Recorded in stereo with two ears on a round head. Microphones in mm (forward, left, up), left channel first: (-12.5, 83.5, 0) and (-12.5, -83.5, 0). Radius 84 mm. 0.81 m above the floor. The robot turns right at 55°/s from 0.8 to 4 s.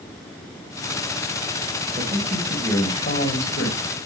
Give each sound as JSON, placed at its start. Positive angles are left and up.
{"t": 2.0, "sound": "a man speaking", "azimuth_deg": -25, "distance_m": 5.5}